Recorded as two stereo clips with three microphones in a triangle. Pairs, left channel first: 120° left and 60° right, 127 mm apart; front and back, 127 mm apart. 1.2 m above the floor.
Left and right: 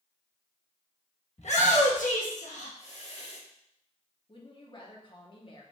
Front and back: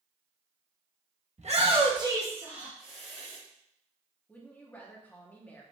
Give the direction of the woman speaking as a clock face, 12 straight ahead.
9 o'clock.